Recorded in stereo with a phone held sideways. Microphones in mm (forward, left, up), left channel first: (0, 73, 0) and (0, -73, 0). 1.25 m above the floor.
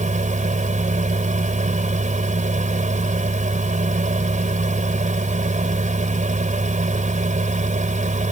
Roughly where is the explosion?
No explosion in this recording.